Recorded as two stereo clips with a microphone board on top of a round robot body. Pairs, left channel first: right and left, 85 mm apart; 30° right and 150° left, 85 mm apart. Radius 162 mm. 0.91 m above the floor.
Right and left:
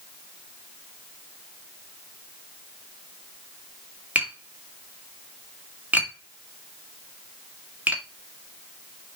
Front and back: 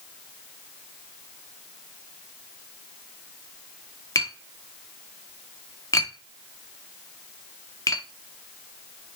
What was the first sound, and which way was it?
Tapping, 15° left.